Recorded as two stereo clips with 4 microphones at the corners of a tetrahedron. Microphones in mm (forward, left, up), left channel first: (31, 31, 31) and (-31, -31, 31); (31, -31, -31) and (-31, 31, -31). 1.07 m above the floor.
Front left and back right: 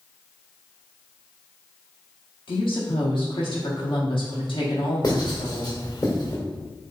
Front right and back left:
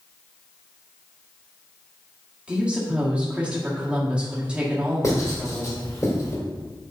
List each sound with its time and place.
2.5 s a woman speaking: 55° left, 1.8 m
5.0 s writing: 5° left, 2 m